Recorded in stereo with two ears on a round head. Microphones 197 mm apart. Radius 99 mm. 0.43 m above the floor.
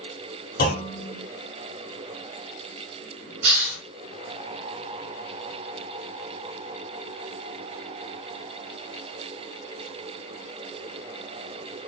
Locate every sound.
0.6 s a clunk: 40° left (ahead or behind), 1.1 m
3.4 s a hiss: 60° right (ahead or behind), 2.5 m